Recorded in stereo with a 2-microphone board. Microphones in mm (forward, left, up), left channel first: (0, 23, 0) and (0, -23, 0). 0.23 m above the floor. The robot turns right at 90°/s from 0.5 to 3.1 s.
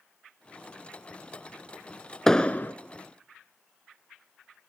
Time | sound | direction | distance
2.3 | an explosion | 10° left | 0.6 m